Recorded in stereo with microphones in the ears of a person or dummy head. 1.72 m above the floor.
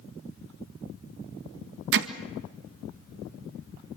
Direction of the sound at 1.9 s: 65° right (ahead or behind).